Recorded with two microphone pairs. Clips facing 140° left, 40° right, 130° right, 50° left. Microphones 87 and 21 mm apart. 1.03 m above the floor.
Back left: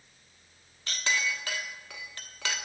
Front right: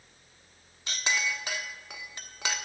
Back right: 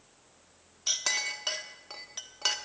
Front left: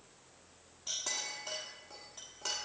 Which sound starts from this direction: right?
A clink, at 0.9 s.